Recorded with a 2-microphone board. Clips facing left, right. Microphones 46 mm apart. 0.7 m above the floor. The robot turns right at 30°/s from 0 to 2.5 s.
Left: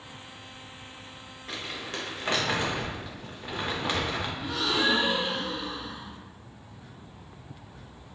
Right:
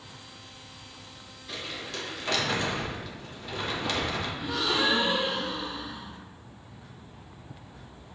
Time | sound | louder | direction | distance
1.5 | crumpling | left 1 dB | 55° left (ahead or behind) | 0.8 m
4.4 | a gasp | even | 5° left (ahead or behind) | 1.3 m